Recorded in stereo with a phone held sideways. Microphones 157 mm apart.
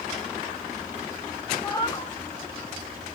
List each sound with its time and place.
1.6 s a cat meowing: 25° left (ahead or behind), 0.8 m